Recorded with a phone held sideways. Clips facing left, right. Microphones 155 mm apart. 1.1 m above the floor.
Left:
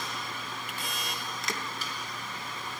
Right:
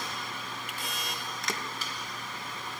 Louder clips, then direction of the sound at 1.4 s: Right 1 dB; centre (ahead or behind).